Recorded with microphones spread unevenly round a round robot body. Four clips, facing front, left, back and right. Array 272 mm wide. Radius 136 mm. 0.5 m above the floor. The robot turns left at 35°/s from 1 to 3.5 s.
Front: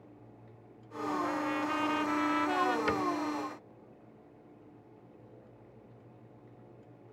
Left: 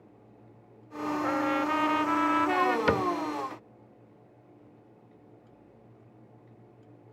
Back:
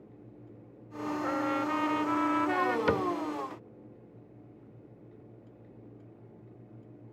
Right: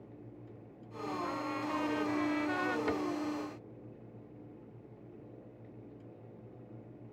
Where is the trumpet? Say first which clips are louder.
Left 11 dB, back 6 dB; 135° left; by 2.8 s 80° left.